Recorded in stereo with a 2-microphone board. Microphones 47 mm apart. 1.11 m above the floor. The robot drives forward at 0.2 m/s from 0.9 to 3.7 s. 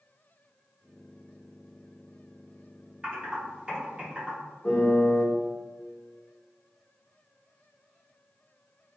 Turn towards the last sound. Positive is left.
turn(degrees=20)  # may be behind; listen again after turning